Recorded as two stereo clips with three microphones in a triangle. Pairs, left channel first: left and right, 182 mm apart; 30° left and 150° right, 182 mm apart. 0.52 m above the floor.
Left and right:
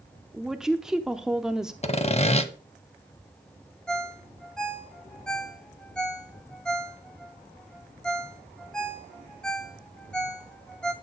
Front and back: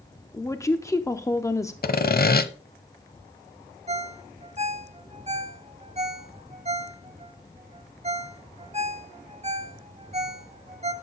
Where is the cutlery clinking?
I don't hear cutlery clinking.